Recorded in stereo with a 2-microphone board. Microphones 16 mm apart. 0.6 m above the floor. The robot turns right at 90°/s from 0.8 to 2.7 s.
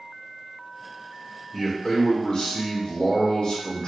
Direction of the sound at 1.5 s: 5° left.